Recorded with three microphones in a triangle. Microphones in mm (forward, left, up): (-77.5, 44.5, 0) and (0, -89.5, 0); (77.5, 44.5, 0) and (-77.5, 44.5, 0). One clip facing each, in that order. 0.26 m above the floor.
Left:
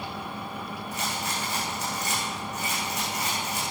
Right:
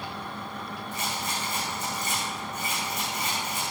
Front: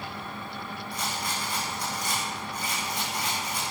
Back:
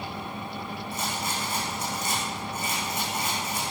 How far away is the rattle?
About 6 m.